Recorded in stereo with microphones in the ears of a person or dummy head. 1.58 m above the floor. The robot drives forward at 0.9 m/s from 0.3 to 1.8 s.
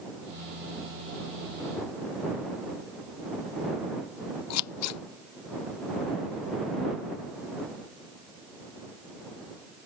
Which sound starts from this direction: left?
Scissors, at 4.5 s.